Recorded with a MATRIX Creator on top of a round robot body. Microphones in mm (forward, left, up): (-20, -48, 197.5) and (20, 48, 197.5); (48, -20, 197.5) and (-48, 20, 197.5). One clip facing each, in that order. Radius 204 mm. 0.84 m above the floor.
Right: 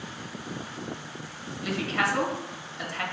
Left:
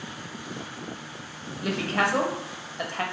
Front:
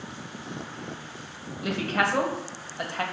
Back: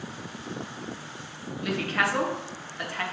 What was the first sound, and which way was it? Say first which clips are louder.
A woman speaking: left 2 dB, front 1 dB; 40° left.